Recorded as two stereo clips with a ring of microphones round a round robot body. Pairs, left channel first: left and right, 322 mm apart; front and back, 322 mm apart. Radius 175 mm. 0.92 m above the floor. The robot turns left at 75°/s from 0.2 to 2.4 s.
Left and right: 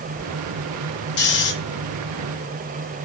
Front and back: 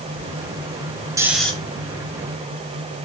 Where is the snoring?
110° left, 0.8 m; by 1.5 s 80° left, 0.8 m.